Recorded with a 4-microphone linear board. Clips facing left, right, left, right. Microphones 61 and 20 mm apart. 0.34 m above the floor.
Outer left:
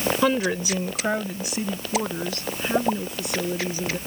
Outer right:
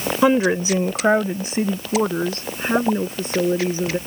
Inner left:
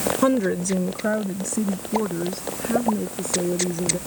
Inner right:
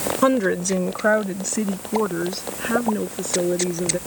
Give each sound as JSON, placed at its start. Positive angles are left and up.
{"t": 0.2, "sound": "a woman speaking", "side_deg": -20}